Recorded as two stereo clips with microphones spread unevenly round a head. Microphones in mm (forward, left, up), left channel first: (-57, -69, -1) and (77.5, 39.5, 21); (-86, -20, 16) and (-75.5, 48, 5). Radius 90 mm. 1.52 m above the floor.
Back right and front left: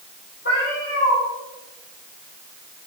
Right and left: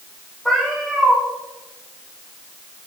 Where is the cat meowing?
175° left, 3.5 m.